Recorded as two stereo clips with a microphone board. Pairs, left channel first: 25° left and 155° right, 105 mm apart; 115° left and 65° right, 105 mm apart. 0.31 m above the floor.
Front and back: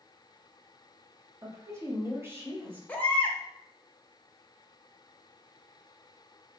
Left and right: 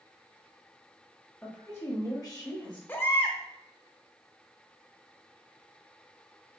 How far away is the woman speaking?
About 1.0 m.